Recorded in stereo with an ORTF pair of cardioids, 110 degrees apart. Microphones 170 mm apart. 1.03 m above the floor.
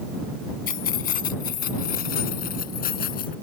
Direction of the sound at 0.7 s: 60° left.